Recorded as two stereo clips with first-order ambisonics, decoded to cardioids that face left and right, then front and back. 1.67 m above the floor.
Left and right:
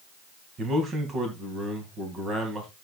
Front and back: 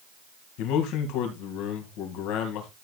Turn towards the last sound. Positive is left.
turn(degrees=-25)